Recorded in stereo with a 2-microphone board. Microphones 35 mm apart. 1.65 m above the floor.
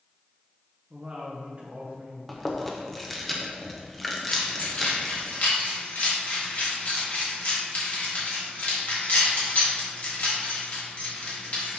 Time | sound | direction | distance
0.9 | a woman speaking | 40° right (ahead or behind) | 0.9 m
2.3 | chewing | 5° left (ahead or behind) | 0.9 m
4.3 | keys jangling | 50° left (ahead or behind) | 2 m